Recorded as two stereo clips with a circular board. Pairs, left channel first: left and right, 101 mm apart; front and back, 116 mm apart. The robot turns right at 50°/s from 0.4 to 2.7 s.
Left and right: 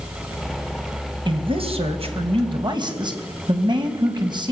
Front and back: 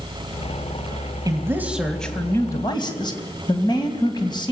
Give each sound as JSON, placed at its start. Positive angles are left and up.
{"t": 1.2, "sound": "a man speaking", "azimuth_deg": -125, "distance_m": 2.5}